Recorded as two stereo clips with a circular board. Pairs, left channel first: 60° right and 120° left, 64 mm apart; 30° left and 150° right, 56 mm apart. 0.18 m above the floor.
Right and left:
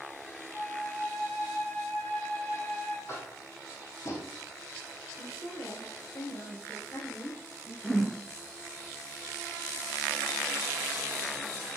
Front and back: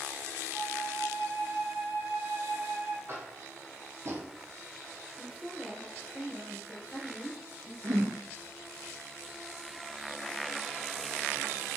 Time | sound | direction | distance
0.5 | a flute | 105° right | 2 m
3.1 | tapping | 105° right | 2.0 m
5.2 | a woman speaking | 70° right | 2.5 m
7.8 | a whoosh | 145° right | 3 m